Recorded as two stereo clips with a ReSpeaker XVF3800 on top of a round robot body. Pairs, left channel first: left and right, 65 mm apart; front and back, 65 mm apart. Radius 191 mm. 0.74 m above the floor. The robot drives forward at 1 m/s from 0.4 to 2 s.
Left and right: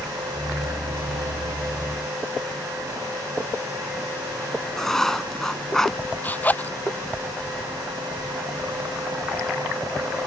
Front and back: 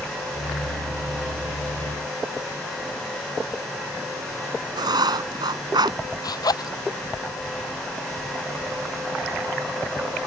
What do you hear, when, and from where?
4.8 s writing: 170° left
6.2 s a zipper: 20° left